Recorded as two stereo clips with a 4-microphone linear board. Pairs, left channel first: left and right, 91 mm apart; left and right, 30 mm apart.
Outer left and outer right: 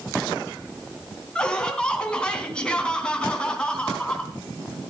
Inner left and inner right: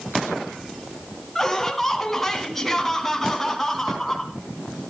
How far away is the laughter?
About 3 m.